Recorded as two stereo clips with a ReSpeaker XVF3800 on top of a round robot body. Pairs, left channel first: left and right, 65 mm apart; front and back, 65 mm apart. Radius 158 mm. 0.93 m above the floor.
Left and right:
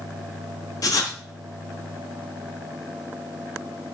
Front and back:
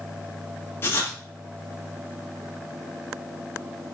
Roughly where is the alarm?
I don't hear an alarm.